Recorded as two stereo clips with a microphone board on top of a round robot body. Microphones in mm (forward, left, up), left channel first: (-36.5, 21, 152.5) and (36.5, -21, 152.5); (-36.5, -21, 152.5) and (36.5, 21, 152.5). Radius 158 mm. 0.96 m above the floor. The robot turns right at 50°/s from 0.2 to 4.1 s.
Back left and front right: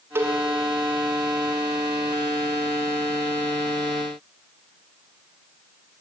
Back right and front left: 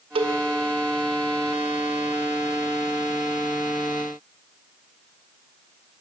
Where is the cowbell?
35° left, 0.6 m; by 0.4 s 45° left, 0.6 m.